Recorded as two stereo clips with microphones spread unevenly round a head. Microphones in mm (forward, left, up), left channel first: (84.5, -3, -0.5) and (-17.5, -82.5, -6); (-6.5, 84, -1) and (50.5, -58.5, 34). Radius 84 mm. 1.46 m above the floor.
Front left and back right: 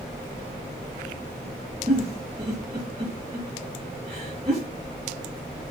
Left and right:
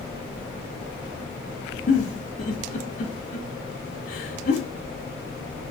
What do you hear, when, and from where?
1.9 s a giggle: 155° left, 3.5 m